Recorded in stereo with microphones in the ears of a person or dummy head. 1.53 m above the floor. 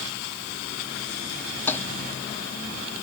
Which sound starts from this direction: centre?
A toilet flushing, at 1.7 s.